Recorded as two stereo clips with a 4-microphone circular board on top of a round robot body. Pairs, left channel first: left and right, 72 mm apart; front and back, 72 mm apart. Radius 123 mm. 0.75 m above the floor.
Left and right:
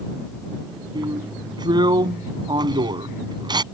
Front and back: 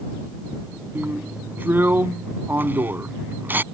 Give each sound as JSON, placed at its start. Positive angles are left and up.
{"t": 0.9, "sound": "a drill", "azimuth_deg": -115}